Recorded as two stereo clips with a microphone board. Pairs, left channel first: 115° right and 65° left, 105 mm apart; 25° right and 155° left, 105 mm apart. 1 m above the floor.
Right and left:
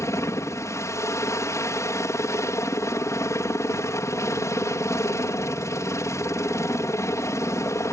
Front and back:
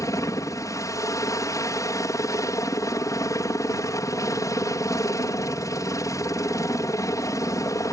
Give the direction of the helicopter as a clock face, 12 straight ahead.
2 o'clock.